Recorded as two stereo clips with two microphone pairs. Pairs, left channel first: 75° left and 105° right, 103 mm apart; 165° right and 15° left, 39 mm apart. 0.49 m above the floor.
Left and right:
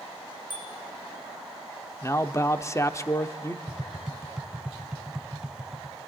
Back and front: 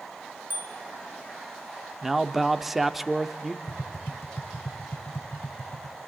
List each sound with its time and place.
0.5 s a bicycle bell: 30° left, 4 m
2.0 s a man speaking: 90° left, 0.7 m
3.7 s tapping: 170° left, 0.6 m